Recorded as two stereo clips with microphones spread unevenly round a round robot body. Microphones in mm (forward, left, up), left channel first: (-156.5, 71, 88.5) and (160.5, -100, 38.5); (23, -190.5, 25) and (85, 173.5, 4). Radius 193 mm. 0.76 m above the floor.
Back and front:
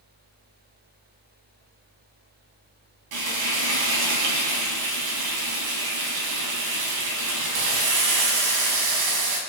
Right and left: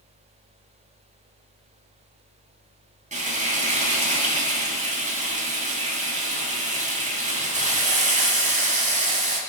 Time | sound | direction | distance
3.1 | frying | 10° left | 8 m